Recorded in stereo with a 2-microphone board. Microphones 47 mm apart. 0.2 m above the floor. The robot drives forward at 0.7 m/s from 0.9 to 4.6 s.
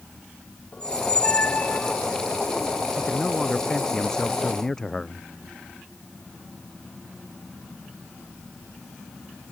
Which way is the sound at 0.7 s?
20° left (ahead or behind).